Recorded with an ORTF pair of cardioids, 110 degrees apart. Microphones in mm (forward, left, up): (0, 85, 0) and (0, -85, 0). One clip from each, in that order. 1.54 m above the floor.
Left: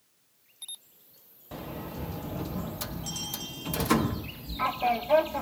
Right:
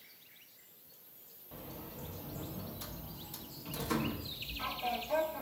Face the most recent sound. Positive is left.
turn(degrees=55)